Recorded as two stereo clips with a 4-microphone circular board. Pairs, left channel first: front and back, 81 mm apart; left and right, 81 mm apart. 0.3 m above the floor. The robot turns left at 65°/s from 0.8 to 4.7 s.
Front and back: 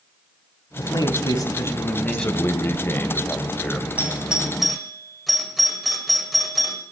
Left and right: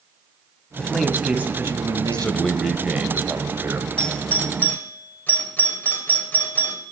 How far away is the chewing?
No chewing in this recording.